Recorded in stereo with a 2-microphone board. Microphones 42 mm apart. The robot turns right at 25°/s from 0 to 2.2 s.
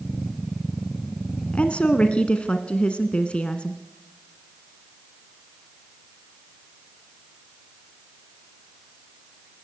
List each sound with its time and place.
1.5 s a woman speaking: 35° left (ahead or behind), 1.3 m; by 3.8 s 30° left (ahead or behind), 1.3 m